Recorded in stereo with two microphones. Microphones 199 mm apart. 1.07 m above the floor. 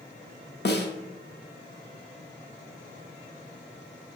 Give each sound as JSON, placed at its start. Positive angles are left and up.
{"t": 0.7, "sound": "a snare drum", "side_deg": 60, "distance_m": 0.6}